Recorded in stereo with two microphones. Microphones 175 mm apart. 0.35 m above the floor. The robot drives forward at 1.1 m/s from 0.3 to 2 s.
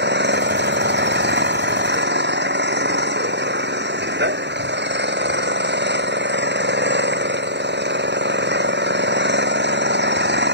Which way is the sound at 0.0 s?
80° right.